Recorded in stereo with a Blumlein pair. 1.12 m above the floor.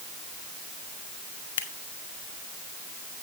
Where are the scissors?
60° left, 1.9 m.